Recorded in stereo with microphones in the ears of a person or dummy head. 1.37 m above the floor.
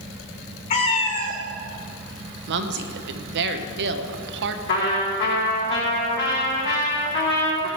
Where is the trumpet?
60° left (ahead or behind), 4.5 m.